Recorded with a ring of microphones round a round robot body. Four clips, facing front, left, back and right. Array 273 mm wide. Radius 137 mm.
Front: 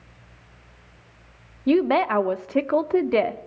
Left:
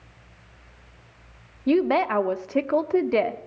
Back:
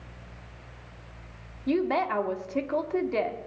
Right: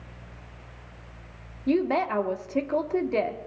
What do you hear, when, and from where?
1.7 s a woman speaking: 30° left, 1.0 m